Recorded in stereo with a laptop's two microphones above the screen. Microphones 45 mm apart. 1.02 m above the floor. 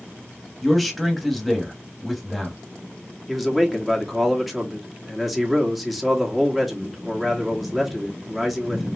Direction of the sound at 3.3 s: 5° right (ahead or behind).